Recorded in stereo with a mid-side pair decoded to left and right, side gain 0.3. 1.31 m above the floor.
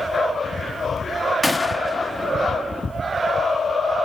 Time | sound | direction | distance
1.4 | a gunshot | 20° left | 0.8 m